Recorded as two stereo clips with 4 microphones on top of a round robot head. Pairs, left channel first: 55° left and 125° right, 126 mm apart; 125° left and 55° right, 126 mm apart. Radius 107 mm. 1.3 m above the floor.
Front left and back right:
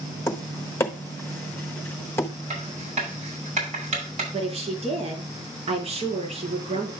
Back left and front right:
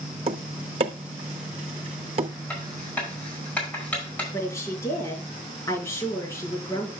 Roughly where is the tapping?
Ahead.